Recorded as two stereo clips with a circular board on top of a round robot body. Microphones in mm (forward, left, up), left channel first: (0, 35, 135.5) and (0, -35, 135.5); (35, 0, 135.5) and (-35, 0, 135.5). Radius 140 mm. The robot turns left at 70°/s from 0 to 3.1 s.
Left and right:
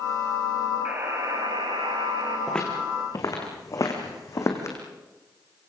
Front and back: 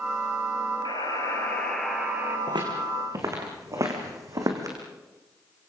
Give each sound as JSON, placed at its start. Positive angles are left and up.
{"t": 0.8, "sound": "a buzzer", "azimuth_deg": -15, "distance_m": 4.0}
{"t": 2.5, "sound": "footsteps", "azimuth_deg": 175, "distance_m": 5.5}